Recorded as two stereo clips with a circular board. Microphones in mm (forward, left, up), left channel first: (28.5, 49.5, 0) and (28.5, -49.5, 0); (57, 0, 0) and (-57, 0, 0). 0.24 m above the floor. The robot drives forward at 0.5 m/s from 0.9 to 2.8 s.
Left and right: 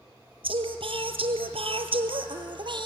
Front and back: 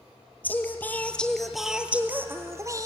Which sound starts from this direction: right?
Singing, at 0.4 s.